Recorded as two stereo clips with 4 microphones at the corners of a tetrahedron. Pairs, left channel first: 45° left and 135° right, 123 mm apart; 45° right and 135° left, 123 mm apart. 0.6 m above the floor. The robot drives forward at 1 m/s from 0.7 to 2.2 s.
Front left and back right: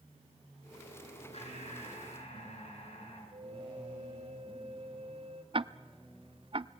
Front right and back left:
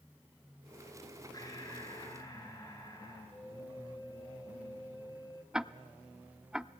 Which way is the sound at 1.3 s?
15° left.